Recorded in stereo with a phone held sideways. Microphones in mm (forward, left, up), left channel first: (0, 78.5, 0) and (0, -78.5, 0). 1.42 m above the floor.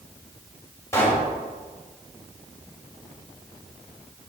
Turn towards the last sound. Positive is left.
turn(degrees=20)  # may be behind; listen again after turning